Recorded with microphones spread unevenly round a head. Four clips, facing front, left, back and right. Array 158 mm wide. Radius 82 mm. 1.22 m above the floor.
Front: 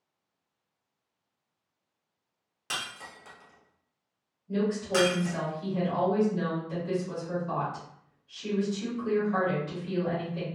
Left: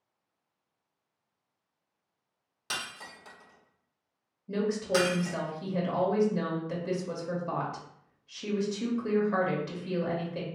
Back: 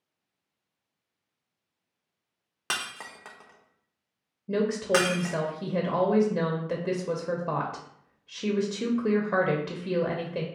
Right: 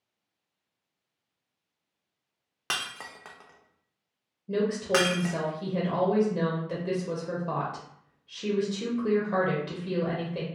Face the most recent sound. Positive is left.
turn(degrees=-170)